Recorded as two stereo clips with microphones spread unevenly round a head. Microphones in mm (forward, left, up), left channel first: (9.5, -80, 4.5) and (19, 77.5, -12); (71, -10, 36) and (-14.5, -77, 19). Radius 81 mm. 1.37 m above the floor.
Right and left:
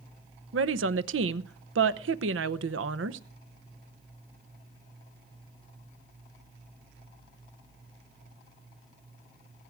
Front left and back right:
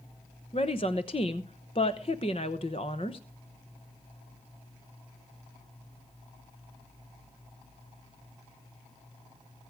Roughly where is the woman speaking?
Left.